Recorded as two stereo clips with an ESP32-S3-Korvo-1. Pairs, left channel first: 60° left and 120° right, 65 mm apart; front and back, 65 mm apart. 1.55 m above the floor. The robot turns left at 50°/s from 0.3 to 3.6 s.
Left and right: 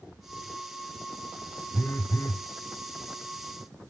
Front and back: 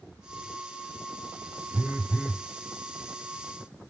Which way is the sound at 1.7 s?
130° left.